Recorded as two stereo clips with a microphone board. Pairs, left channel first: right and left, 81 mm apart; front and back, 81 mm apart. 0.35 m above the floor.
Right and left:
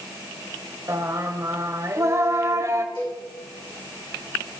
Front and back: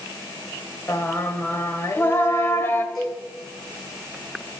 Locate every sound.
0.9 s singing: 50° left, 0.8 m
3.0 s a cowbell: 85° right, 5 m